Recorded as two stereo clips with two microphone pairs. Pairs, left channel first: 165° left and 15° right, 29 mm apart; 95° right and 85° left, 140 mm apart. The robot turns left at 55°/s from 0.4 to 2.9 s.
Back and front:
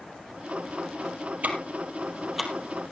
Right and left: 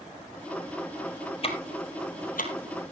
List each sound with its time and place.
1.4 s ticking: 45° right, 2.5 m; by 2.9 s 130° right, 2.5 m